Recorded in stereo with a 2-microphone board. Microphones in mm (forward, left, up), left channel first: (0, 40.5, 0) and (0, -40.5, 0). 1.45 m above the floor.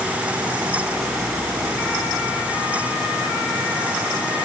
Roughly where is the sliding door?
I don't hear a sliding door.